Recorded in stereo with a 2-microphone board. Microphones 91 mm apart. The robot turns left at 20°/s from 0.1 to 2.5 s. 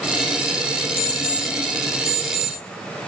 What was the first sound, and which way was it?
An alarm clock, 25° left (ahead or behind).